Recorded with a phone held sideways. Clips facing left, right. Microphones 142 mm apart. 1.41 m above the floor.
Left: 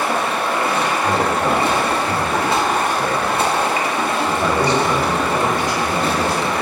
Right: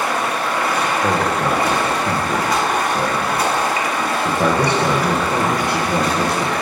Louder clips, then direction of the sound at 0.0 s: Left 1 dB; 25° left (ahead or behind).